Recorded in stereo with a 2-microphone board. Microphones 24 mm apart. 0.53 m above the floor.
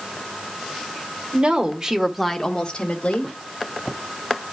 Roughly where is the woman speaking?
Right.